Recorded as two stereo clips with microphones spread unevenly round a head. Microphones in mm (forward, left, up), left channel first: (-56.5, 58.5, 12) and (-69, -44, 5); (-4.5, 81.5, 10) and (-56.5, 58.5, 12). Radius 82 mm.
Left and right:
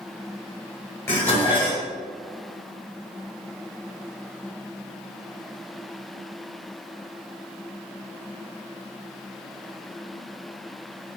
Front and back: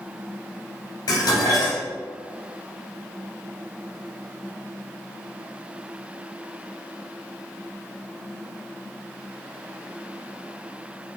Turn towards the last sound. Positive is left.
turn(degrees=5)